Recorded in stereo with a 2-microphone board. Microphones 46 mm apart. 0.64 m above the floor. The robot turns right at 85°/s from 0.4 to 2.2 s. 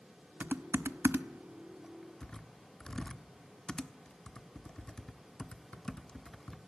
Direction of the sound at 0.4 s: 40° right (ahead or behind).